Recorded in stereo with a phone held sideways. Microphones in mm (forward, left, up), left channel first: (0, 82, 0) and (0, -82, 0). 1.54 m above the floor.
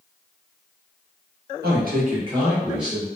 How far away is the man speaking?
About 0.9 m.